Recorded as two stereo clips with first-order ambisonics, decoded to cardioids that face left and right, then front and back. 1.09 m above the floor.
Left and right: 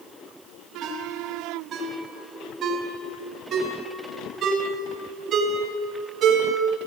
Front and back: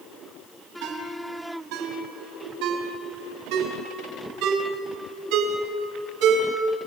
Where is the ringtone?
150° right, 5 m.